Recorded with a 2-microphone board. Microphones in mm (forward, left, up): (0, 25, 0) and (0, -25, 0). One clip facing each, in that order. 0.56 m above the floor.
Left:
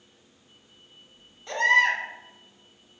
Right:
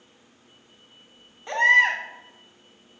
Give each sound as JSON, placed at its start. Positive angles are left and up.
{"t": 1.5, "sound": "a baby crying", "side_deg": -25, "distance_m": 1.8}